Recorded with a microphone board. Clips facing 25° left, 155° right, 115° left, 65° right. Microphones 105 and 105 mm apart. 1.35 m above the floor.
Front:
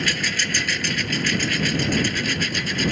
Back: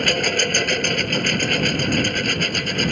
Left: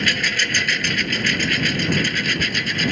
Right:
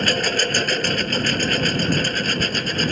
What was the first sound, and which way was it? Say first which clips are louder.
A lawn mower: back 6 dB, right 3 dB; 120° right.